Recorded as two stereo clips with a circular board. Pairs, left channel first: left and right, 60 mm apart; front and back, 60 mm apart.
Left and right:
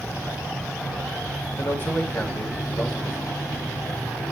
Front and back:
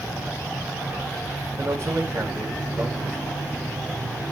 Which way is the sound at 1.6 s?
140° left.